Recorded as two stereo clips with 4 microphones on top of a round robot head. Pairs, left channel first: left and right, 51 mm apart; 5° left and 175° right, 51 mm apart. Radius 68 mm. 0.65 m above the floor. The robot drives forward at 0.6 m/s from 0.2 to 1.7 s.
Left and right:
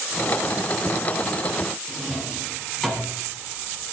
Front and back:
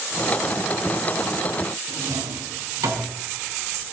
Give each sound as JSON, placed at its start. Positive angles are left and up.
{"t": 1.9, "sound": "a drawer", "azimuth_deg": 175, "distance_m": 4.0}